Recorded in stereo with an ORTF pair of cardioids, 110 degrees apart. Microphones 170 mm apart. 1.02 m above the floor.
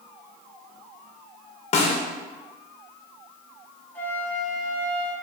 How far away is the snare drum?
About 0.6 m.